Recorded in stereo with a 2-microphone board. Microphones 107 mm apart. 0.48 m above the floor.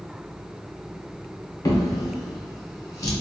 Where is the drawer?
30° left (ahead or behind), 0.7 m.